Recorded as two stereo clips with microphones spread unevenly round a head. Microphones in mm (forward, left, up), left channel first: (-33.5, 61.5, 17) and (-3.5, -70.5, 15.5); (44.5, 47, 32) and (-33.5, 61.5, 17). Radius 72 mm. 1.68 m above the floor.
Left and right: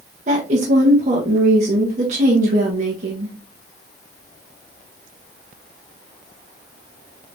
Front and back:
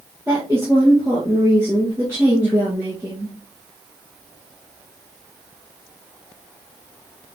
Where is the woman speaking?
115° right, 1.6 m.